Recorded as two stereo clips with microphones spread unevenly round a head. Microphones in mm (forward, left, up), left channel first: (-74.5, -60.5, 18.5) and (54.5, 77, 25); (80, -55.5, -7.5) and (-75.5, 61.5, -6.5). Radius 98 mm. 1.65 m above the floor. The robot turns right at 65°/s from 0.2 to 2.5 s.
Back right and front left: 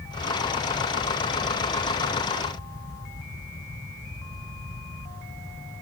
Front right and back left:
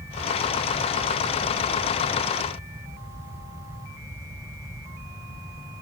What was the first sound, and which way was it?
Only background noise.